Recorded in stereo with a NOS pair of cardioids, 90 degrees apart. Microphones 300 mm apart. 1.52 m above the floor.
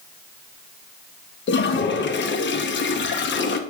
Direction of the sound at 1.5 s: 40° left.